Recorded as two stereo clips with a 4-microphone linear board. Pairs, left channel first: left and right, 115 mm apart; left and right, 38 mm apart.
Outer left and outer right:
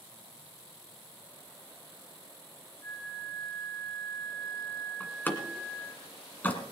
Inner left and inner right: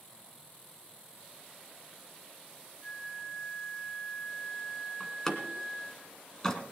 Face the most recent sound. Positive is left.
turn(degrees=15)  # may be behind; listen again after turning